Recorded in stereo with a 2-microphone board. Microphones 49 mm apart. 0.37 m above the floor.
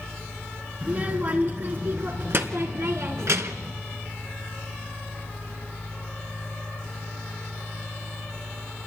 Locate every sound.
0.8 s a child speaking: 30° right (ahead or behind), 3 m; by 3.7 s 70° right (ahead or behind), 3 m